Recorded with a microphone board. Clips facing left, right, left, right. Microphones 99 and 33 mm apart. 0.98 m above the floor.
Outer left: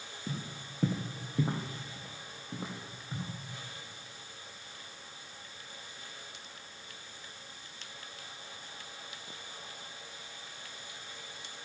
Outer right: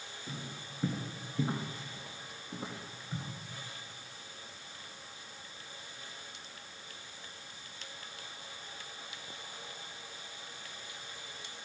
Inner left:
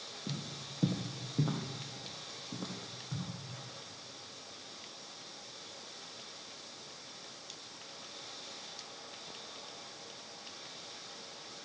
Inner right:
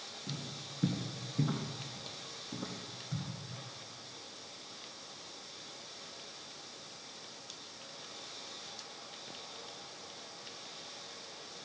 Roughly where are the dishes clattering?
No dishes clattering in this recording.